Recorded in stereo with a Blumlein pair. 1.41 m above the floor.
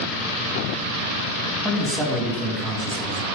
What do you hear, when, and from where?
1.6 s a man speaking: 5° right, 2.5 m